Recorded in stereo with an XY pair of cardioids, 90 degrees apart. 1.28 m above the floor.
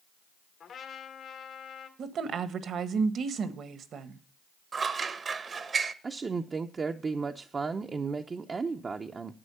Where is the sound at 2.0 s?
65° right, 1.3 m.